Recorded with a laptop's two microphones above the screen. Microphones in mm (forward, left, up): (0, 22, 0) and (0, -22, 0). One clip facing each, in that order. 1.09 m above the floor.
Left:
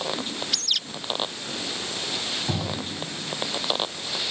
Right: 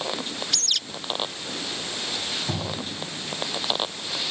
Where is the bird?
5° left (ahead or behind).